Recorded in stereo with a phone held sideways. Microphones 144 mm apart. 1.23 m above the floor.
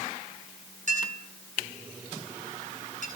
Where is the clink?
60° right (ahead or behind), 8.5 m.